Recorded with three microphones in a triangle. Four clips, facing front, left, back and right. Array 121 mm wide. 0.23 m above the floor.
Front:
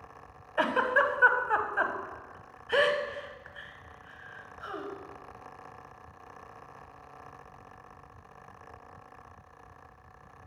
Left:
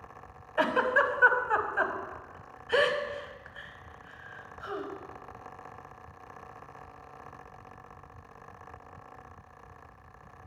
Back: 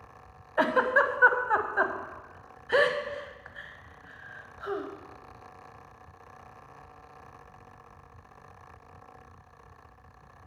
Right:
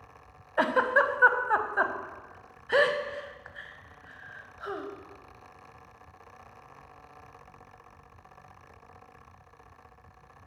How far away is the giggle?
About 0.6 m.